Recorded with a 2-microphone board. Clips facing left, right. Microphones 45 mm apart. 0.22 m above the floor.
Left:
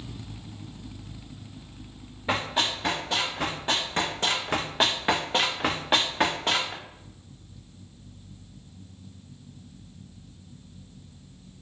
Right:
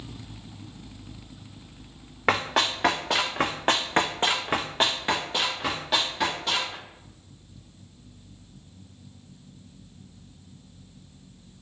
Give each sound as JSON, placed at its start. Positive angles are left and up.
{"t": 2.3, "sound": "running footsteps", "side_deg": -80, "distance_m": 1.2}